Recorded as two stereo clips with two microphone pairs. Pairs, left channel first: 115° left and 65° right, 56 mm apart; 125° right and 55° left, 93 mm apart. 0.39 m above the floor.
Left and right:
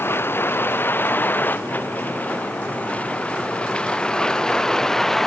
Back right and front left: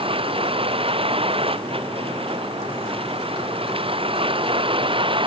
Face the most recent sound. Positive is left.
turn(degrees=30)